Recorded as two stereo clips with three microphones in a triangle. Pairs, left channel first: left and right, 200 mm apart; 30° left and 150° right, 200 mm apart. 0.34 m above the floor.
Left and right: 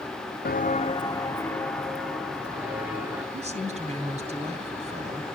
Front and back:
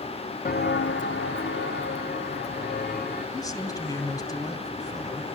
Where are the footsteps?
65° left, 0.7 m; by 3.2 s 10° right, 3 m.